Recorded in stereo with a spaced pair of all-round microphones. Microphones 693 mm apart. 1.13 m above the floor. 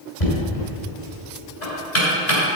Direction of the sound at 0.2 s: 80° left.